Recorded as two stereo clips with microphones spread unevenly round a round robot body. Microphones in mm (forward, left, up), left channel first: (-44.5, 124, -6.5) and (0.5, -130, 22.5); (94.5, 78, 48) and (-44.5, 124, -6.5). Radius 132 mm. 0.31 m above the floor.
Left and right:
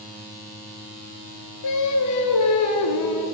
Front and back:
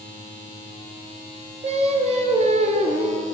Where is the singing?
120° left, 2.0 m.